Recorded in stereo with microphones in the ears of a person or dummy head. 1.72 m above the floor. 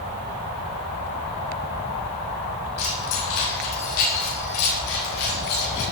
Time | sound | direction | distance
2.8 | keys jangling | 80° left | 7 m